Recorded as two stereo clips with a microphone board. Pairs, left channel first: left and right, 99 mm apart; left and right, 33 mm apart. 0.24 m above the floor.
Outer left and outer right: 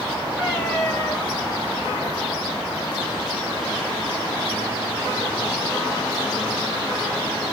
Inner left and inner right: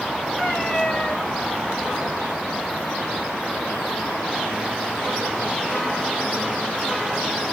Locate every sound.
0.4 s a cat meowing: 25° left (ahead or behind), 2 m